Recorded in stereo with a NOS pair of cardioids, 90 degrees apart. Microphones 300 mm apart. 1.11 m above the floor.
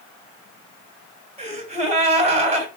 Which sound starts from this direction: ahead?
A gasp, at 1.4 s.